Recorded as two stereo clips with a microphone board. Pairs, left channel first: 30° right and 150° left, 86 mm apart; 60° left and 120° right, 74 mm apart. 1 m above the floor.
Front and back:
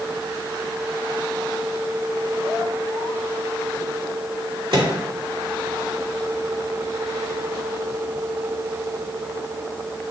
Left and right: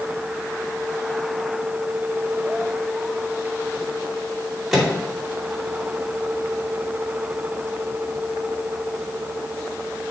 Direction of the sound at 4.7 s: 155° left.